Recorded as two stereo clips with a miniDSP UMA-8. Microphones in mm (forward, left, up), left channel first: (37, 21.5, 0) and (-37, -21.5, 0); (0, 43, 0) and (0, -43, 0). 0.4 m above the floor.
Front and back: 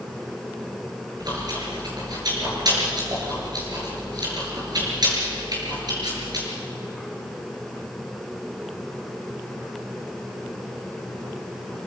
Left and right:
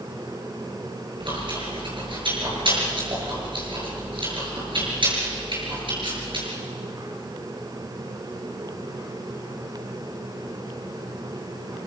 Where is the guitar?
I don't hear a guitar.